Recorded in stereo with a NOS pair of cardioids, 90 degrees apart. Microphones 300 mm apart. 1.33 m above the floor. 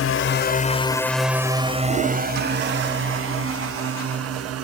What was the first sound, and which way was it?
A drone, 50° left.